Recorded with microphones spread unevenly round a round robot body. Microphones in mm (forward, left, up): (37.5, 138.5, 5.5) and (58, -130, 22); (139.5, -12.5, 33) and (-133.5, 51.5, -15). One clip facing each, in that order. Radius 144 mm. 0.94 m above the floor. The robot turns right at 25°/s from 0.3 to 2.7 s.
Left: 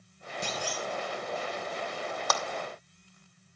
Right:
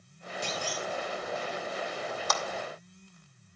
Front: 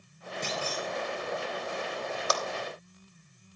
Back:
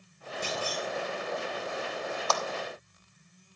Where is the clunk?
85° left, 2.5 m; by 0.9 s 95° left, 2.5 m.